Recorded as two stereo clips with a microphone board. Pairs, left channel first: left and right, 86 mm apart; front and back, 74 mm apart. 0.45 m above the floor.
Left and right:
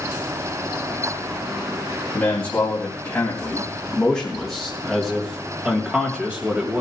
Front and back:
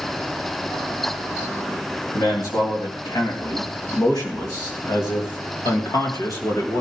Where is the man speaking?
20° left, 3.5 m; by 6.8 s 25° right, 2.5 m.